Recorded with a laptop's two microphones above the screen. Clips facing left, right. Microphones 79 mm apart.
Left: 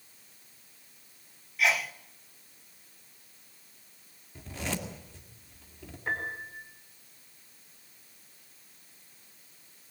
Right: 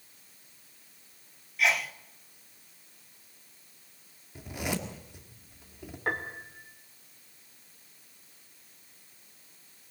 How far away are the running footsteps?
No running footsteps in this recording.